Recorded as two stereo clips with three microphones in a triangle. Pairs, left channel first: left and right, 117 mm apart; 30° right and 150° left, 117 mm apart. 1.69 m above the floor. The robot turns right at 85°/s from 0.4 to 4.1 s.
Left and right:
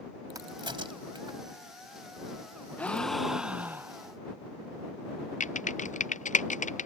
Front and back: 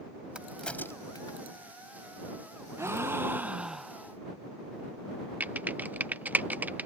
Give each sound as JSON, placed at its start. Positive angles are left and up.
{"t": 0.3, "sound": "a crack", "azimuth_deg": -135}
{"t": 2.8, "sound": "a gasp", "azimuth_deg": 145}
{"t": 5.4, "sound": "typing on a keyboard", "azimuth_deg": 75}